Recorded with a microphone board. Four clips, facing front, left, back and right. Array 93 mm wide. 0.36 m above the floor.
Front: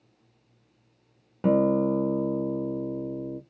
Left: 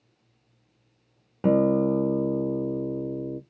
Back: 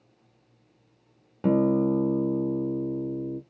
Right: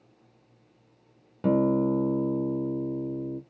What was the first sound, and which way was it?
A guitar, 70° left.